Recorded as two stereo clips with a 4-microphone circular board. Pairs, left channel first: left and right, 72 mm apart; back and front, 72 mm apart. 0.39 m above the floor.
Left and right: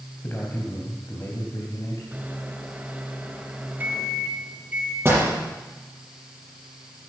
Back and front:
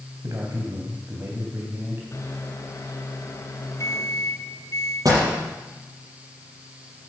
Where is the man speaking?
35° left, 3 m; by 2.0 s 55° left, 3 m.